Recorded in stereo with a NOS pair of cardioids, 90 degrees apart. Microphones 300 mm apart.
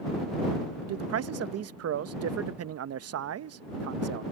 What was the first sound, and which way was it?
A man speaking, 55° right.